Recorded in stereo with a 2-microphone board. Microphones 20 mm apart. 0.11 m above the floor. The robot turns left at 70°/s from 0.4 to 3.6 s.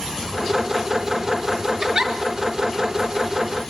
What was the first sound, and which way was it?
A giggle, 35° right (ahead or behind).